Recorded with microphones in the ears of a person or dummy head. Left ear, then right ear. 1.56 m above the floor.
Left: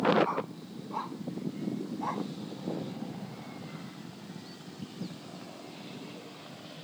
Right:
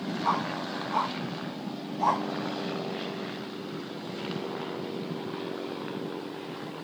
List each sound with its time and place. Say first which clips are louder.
0.2 s a dog barking: right 6 dB; 20° right (ahead or behind); by 2.3 s 30° right (ahead or behind)